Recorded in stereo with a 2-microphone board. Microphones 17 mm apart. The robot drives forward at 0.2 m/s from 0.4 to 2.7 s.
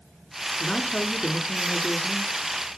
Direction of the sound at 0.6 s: 70° left (ahead or behind).